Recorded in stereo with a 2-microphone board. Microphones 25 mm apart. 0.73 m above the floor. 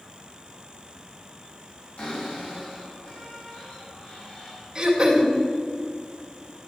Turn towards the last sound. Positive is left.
turn(degrees=-20)  # may be behind; listen again after turning